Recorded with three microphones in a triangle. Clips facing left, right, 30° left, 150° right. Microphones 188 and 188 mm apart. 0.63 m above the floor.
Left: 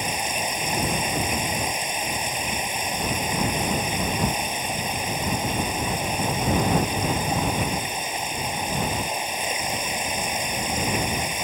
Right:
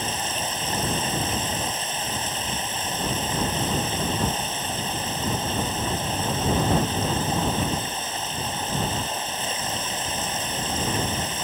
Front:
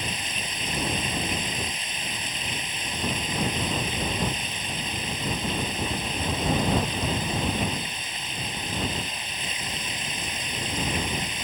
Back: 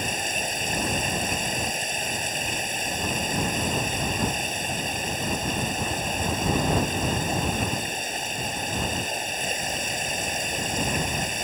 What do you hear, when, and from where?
0.0 s running water: 165° left